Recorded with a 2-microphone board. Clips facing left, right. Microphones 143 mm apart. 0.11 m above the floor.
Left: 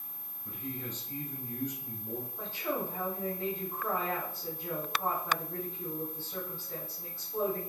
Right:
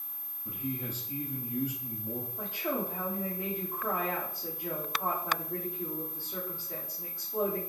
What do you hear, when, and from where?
0.5 s a man speaking: 10° right (ahead or behind), 1.8 m
2.4 s a woman speaking: 15° right (ahead or behind), 3 m